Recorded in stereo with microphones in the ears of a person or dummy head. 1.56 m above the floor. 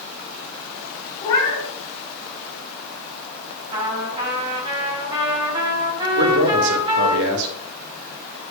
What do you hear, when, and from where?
1.2 s a cat meowing: 20° left (ahead or behind), 3.5 m
3.7 s a trumpet: 25° right (ahead or behind), 5 m
6.2 s a man speaking: 70° right (ahead or behind), 2 m